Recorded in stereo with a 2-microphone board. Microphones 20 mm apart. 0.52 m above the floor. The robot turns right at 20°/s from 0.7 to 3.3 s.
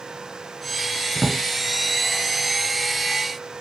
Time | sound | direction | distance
1.1 | a drawer | 60° left (ahead or behind) | 2.5 m